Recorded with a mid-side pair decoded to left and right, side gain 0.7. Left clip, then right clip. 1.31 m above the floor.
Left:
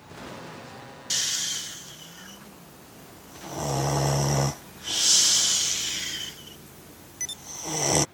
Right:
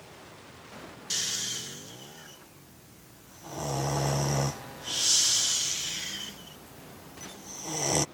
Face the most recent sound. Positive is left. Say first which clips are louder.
# left 4 dB
turn(degrees=15)